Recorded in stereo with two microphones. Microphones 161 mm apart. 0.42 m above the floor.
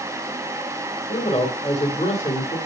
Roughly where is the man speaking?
Left.